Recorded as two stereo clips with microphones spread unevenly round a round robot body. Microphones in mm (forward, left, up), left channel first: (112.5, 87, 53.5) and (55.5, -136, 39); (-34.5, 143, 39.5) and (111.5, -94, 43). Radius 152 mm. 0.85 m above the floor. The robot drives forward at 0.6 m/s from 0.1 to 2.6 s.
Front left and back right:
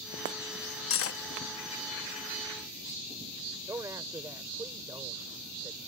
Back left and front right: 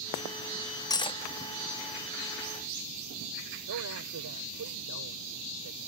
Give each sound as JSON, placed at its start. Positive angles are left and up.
{"t": 0.9, "sound": "cutlery clinking", "azimuth_deg": 45}
{"t": 3.7, "sound": "a man speaking", "azimuth_deg": -25}